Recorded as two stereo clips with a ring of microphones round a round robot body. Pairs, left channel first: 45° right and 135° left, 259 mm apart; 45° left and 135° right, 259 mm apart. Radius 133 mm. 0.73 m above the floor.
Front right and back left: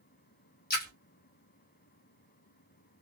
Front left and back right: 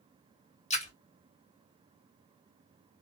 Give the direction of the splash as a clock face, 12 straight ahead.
12 o'clock.